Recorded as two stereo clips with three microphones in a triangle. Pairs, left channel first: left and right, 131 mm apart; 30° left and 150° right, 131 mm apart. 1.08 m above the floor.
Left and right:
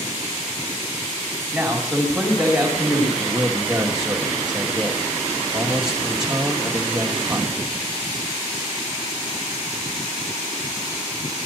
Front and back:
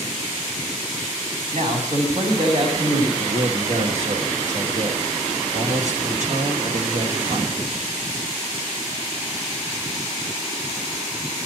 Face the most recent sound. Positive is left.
turn(degrees=-175)